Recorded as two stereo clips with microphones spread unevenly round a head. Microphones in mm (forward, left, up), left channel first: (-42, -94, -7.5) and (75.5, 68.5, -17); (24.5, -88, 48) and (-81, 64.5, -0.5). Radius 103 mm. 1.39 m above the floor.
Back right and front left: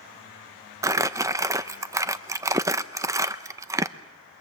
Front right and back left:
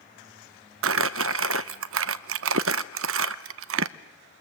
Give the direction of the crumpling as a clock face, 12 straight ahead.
8 o'clock.